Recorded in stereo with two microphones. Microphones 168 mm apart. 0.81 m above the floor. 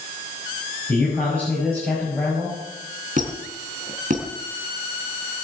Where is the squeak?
50° right (ahead or behind), 2 m.